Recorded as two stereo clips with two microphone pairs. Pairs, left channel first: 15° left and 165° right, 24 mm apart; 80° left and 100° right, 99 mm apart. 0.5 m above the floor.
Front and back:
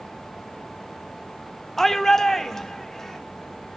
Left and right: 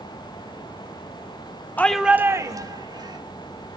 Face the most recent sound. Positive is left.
turn(degrees=-60)